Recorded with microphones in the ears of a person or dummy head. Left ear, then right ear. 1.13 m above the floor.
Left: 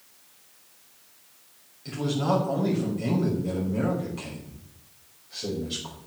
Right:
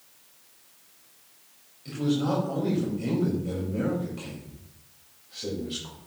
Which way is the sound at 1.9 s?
15° left (ahead or behind).